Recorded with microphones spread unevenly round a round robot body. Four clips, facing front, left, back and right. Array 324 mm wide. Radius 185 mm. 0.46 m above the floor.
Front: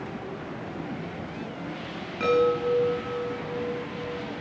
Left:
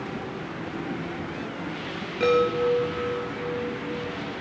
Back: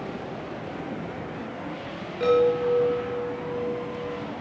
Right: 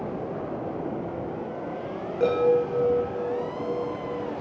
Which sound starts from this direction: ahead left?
A chime, at 2.2 s.